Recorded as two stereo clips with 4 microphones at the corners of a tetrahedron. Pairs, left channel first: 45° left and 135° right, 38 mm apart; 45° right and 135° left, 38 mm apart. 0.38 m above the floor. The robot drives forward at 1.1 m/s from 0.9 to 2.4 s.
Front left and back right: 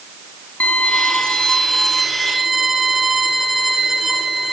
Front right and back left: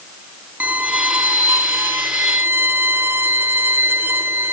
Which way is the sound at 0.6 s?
95° left.